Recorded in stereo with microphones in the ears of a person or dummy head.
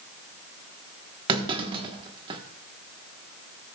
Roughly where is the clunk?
Right.